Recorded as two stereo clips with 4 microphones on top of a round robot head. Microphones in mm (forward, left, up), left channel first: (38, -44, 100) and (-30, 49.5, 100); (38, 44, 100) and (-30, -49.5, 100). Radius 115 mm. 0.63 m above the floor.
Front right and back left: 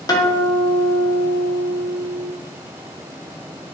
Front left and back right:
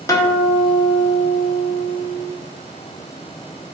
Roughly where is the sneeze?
I don't hear a sneeze.